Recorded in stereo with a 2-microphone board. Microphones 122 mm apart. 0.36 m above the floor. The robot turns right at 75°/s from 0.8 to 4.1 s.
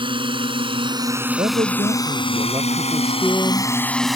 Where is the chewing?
I don't hear chewing.